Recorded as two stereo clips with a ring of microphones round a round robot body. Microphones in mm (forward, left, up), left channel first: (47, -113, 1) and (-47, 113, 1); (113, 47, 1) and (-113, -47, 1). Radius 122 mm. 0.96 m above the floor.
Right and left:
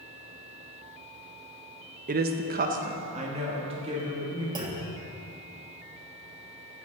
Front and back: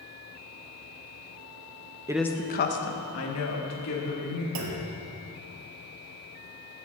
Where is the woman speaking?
140° left, 0.6 m; by 4.5 s 45° left, 3 m.